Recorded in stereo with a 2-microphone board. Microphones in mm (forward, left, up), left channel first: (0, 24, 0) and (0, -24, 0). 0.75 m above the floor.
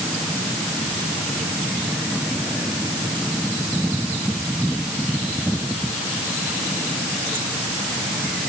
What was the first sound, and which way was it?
Only background noise.